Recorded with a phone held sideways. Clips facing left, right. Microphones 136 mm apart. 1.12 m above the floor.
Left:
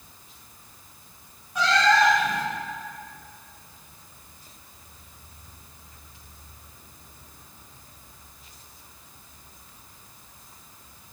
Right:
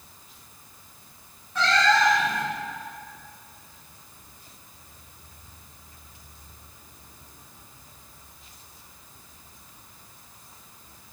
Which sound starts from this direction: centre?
A cat meowing, at 1.6 s.